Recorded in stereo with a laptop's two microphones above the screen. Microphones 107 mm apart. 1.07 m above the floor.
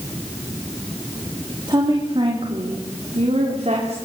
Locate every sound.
1.7 s a woman speaking: 40° right (ahead or behind), 2.5 m; by 4.0 s 80° right, 4 m